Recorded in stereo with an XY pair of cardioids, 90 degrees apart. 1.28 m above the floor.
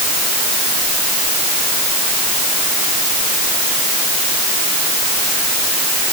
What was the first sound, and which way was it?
Only background noise.